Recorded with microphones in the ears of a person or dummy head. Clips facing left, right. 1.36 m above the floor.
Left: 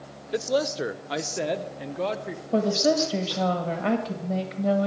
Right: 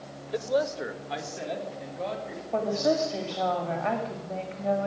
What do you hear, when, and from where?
0.3 s a man speaking: 20° left (ahead or behind), 0.7 m; by 2.4 s 75° left (ahead or behind), 1.8 m
2.5 s a woman speaking: 40° left (ahead or behind), 1.5 m